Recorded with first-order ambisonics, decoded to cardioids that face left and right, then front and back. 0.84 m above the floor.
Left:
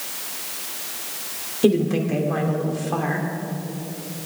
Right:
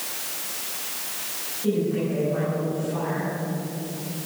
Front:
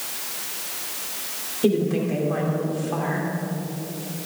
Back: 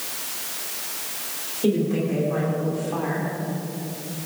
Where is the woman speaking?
75° left, 3 m.